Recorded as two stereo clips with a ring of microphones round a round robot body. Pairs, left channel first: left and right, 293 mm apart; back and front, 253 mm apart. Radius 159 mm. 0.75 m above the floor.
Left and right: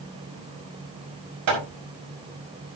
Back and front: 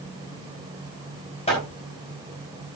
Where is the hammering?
110° right, 5.5 m.